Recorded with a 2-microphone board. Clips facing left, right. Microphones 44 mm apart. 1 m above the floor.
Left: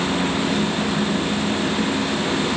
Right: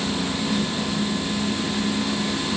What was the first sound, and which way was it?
Only background noise.